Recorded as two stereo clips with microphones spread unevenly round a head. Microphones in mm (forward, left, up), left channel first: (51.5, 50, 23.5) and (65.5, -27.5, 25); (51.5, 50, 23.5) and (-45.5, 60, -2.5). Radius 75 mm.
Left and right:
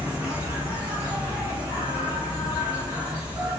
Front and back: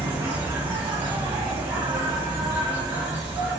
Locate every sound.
0.0 s an insect: 145° right, 0.8 m